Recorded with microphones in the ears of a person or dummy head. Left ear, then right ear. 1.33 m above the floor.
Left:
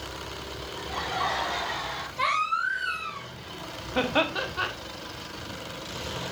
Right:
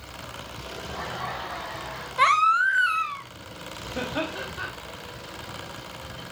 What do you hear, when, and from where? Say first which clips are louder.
0.8 s laughter: left 4 dB; 35° left (ahead or behind), 5 m
2.2 s a baby crying: right 7 dB; 45° right (ahead or behind), 1.0 m
4.0 s laughter: left 5 dB; 25° left (ahead or behind), 1.2 m